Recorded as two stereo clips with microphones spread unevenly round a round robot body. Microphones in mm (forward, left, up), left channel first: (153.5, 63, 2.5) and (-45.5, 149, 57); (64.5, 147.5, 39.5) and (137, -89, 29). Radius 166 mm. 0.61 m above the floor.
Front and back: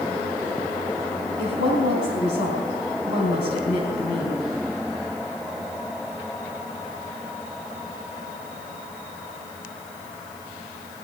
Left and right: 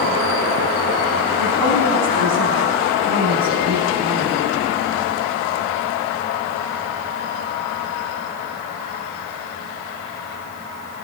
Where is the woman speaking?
75° right, 4 m.